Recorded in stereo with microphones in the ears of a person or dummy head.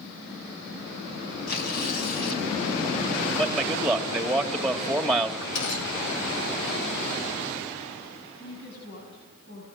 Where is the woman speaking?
55° left (ahead or behind), 8 m.